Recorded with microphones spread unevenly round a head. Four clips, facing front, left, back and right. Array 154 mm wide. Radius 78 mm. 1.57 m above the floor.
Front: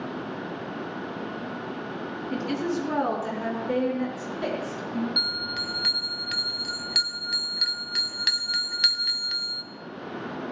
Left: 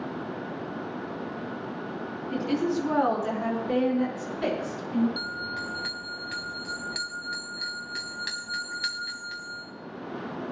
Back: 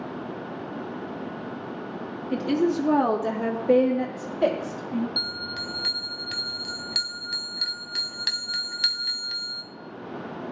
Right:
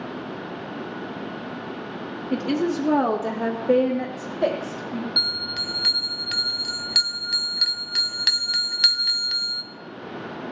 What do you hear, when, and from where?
2.3 s a woman speaking: 105° right, 2.5 m; by 5.1 s 135° right, 4 m
5.2 s a bell: 85° right, 1.1 m